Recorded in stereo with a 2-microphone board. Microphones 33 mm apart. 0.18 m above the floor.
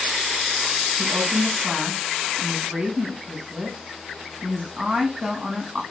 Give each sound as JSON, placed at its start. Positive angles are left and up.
{"t": 1.0, "sound": "a woman speaking", "side_deg": -25, "distance_m": 1.1}